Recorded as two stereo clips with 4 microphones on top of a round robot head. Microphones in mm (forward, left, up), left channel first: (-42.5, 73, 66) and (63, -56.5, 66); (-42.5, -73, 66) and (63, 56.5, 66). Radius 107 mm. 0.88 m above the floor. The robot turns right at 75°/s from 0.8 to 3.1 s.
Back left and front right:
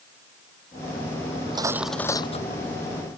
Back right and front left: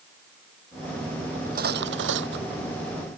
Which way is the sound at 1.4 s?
Straight ahead.